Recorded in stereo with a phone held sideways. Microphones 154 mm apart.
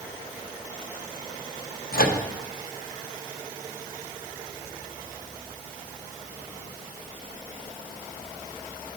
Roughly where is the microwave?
Left.